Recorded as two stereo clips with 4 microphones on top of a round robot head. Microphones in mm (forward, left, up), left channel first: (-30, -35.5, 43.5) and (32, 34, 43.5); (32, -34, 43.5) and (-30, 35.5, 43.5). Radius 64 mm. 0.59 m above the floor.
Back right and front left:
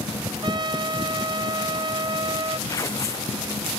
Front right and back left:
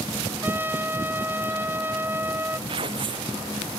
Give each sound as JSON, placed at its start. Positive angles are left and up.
{"t": 0.4, "sound": "a trumpet", "azimuth_deg": 70}
{"t": 2.7, "sound": "tearing paper", "azimuth_deg": 170}